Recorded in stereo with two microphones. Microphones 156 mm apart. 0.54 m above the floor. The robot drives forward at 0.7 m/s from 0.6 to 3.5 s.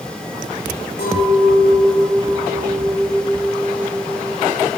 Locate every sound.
1.0 s a clink: 85° left, 9 m; by 4.8 s 75° left (ahead or behind), 9 m